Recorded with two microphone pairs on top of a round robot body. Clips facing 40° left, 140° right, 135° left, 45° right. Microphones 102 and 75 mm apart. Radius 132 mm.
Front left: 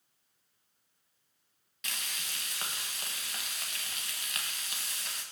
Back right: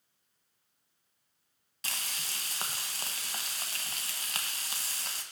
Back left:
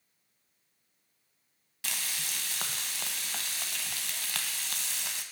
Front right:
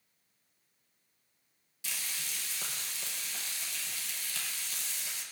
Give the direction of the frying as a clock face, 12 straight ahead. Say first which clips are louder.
Back right 1 dB, back left 4 dB; 7 o'clock.